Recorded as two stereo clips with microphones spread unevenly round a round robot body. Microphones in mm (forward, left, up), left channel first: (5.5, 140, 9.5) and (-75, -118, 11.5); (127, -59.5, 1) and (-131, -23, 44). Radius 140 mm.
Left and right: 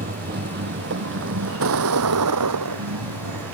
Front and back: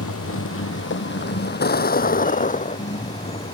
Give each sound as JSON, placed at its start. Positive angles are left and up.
{"t": 0.0, "sound": "a vehicle", "azimuth_deg": -45}